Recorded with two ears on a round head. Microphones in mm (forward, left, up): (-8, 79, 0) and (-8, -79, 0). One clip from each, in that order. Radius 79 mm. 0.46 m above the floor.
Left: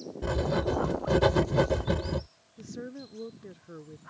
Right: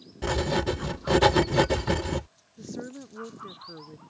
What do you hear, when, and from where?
0.2 s writing: 55° right (ahead or behind)
2.6 s a woman speaking: 15° right (ahead or behind)